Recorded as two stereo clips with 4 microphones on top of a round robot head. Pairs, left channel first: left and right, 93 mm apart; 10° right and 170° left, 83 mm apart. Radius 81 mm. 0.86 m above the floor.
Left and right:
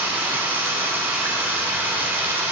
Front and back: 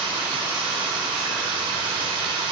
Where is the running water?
160° right, 2 m.